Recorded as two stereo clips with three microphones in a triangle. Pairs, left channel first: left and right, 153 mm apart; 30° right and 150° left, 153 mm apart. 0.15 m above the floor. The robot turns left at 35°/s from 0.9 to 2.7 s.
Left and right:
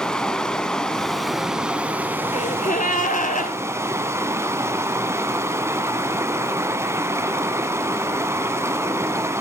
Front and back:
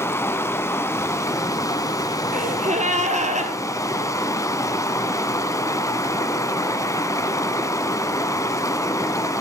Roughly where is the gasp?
Behind left.